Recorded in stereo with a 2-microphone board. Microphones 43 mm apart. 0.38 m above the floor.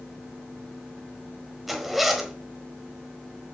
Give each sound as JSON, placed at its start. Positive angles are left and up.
{"t": 1.7, "sound": "a zipper", "side_deg": -5, "distance_m": 1.2}